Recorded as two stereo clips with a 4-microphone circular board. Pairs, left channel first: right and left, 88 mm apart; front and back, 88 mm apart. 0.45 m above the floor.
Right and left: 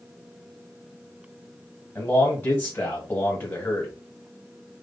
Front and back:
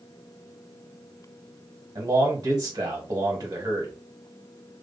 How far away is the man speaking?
About 1.6 m.